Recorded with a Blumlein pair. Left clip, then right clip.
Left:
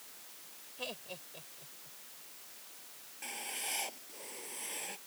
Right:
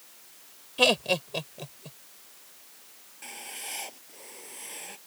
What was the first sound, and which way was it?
Laughter, 50° right.